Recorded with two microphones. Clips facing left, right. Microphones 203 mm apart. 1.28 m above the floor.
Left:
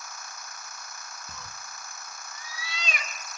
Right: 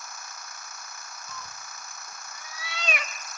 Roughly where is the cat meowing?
Left.